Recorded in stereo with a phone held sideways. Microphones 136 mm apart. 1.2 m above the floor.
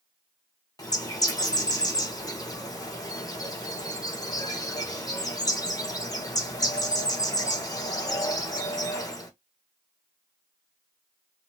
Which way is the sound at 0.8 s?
25° left (ahead or behind).